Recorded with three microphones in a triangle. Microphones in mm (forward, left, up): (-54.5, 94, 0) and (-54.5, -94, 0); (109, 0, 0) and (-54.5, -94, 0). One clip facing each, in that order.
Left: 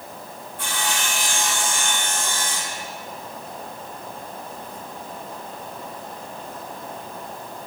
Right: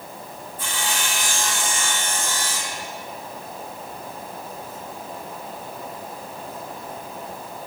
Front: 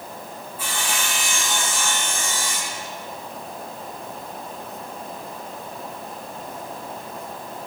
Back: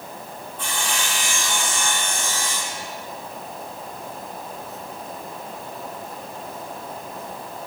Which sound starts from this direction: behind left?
Sawing, at 0.6 s.